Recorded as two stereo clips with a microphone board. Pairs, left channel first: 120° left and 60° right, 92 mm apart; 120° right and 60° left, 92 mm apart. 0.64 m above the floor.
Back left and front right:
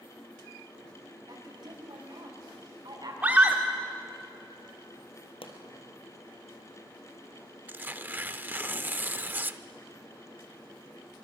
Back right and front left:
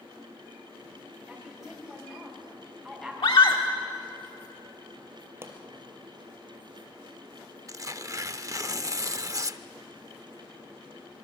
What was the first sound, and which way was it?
A woman speaking, 35° right.